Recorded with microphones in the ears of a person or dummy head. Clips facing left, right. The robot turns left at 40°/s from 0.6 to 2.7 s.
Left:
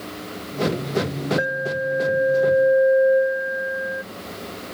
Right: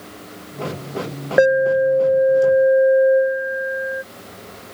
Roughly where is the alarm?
Right.